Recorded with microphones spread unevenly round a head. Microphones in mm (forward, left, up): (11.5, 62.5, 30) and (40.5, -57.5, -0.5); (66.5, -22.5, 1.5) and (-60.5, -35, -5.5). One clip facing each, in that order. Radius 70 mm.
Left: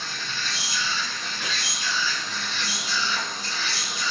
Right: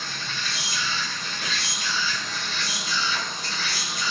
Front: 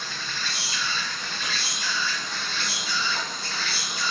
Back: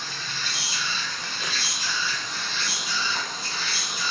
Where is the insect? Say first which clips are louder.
Even, front 1 dB; 105° right, 0.9 m.